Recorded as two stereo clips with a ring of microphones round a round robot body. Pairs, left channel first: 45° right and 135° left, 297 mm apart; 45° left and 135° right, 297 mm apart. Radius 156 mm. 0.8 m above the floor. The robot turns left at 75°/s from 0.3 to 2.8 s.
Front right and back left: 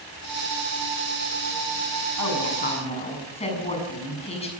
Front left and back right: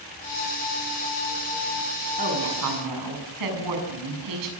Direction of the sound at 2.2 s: 70° right.